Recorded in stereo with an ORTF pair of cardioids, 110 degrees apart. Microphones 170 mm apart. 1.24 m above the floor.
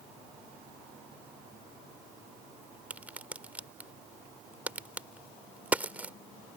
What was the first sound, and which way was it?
A crack, 10° right.